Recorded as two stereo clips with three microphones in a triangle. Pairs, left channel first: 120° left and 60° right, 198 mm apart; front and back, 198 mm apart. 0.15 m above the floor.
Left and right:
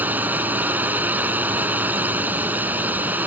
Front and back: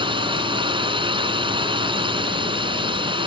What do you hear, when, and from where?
0.0 s a drone: 135° right